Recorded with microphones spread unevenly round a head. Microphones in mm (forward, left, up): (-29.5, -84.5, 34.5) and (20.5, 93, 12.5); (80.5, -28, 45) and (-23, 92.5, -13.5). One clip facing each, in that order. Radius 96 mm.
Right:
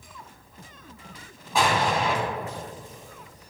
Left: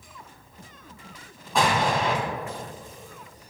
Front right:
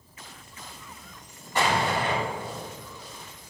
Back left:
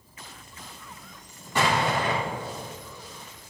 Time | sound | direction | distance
1.6 | an explosion | 170° left | 3 m